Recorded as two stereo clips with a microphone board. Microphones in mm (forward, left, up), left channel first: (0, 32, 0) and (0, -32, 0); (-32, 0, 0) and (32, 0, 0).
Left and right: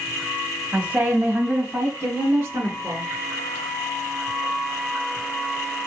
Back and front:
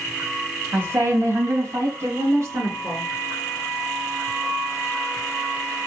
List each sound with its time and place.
0.7 s a woman speaking: 25° right, 1.3 m; by 3.1 s 35° right, 3 m